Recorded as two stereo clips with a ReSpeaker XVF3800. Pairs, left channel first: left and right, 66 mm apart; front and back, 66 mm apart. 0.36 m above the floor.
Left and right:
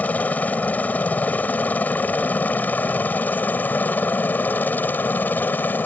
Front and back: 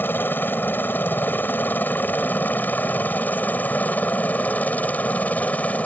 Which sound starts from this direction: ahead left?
A helicopter, at 0.0 s.